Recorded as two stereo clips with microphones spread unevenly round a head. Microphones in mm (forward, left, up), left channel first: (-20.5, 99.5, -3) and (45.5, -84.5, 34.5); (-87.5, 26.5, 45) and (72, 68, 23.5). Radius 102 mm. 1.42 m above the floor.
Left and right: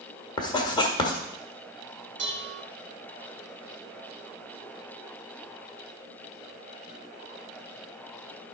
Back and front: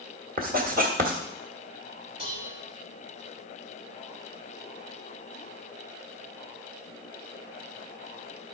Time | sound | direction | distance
0.4 | writing | 35° left | 1.5 m
2.2 | dishes clattering | 50° right | 1.8 m